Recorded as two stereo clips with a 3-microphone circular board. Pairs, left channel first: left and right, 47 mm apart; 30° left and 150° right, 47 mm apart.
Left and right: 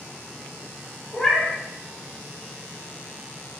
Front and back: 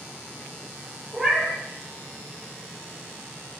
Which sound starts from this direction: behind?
A cat meowing, at 1.1 s.